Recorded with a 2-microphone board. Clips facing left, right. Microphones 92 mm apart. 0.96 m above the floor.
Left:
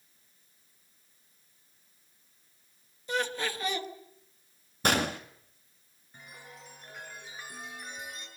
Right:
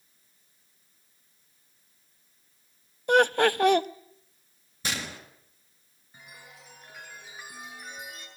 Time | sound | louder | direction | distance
3.1 | laughter | right 12 dB | 65° right (ahead or behind) | 1.1 m
4.8 | a gunshot | left 8 dB | 55° left (ahead or behind) | 2 m
6.1 | a chime | left 1 dB | 5° right (ahead or behind) | 8.5 m